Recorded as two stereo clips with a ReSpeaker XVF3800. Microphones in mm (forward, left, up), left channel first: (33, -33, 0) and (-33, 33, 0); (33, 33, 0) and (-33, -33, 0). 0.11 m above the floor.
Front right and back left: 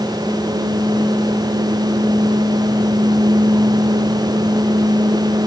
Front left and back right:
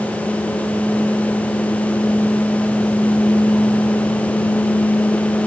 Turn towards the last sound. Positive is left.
No sound to turn to.